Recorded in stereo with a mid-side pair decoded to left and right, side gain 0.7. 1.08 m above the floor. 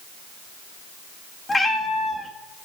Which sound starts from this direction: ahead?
A cat meowing, at 1.5 s.